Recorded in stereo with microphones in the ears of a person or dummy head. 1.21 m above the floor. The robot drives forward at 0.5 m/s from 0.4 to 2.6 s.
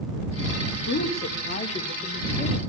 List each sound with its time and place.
0.9 s a woman speaking: 55° left (ahead or behind), 1.6 m; by 2.6 s 35° left (ahead or behind), 2.5 m